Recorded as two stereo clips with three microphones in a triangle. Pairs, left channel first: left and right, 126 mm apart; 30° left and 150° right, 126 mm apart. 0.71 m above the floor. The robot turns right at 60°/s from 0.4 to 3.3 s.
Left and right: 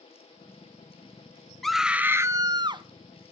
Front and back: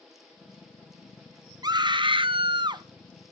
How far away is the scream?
About 0.5 m.